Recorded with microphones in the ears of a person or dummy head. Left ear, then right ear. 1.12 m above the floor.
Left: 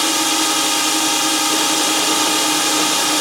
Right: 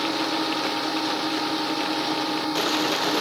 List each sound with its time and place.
0.0 s a drone: 70° left (ahead or behind)